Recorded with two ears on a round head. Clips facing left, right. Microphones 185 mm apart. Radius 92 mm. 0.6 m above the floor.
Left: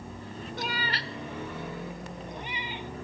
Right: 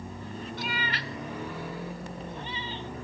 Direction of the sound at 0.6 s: 40° left (ahead or behind).